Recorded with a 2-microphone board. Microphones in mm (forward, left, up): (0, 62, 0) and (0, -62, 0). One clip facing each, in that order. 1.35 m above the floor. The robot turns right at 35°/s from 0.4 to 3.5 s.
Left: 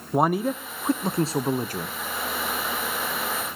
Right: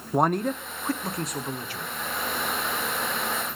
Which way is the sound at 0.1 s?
5° left.